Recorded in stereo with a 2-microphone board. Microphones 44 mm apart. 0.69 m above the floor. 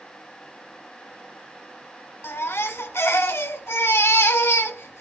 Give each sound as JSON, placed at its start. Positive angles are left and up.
{"t": 2.2, "sound": "a baby crying", "side_deg": 75, "distance_m": 2.5}